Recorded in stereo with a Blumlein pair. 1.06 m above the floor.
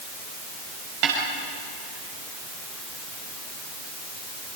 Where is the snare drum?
40° right, 6.5 m.